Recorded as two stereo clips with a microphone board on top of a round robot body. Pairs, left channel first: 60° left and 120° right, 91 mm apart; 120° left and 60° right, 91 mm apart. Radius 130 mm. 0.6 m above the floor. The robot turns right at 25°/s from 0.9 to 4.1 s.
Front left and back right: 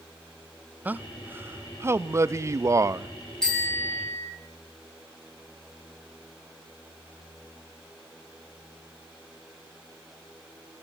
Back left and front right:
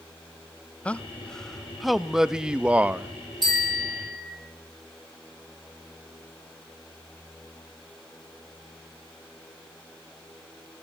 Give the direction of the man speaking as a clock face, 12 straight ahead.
6 o'clock.